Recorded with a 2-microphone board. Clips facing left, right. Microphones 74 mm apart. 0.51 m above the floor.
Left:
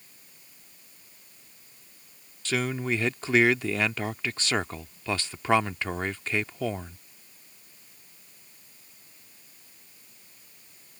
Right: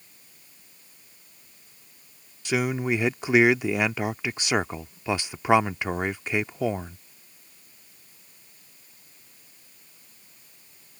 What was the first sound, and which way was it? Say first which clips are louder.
A man speaking: right 3 dB; 15° right (ahead or behind).